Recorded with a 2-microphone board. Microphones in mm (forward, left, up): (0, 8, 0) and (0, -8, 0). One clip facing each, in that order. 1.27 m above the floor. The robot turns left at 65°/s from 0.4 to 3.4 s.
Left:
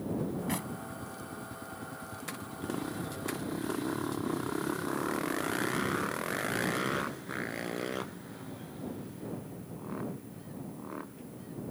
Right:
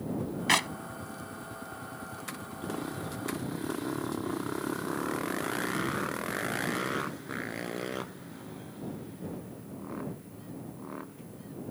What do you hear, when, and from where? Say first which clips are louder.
0.5 s a clap: right 10 dB; 80° right; by 0.7 s 90° right